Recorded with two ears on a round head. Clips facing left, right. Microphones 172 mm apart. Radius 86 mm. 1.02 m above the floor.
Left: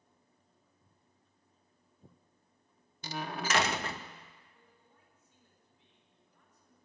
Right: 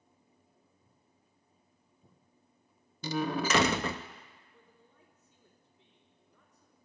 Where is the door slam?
70° right (ahead or behind), 0.6 m.